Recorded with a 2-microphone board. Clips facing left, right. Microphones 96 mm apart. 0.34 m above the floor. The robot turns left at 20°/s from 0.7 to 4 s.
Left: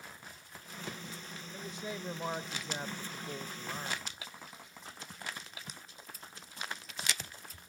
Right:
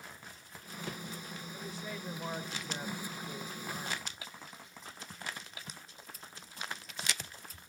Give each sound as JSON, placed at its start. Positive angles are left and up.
{"t": 1.5, "sound": "a man speaking", "side_deg": 20, "distance_m": 0.9}